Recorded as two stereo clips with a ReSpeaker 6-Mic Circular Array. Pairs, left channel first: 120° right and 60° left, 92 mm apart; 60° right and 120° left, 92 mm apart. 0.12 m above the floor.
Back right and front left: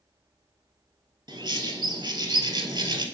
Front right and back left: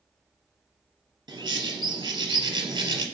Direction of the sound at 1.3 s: 90° left.